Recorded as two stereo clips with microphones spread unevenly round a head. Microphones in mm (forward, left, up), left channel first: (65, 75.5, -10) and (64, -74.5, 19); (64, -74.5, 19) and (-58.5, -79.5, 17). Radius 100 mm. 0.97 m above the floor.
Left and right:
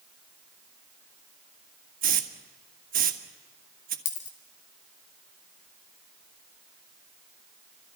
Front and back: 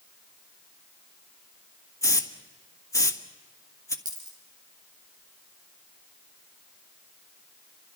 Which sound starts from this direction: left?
A dropped coin, at 4.0 s.